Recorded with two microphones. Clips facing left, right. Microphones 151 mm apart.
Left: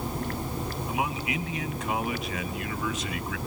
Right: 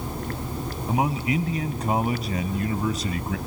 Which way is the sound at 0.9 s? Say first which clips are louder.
Right 8 dB; 35° right (ahead or behind).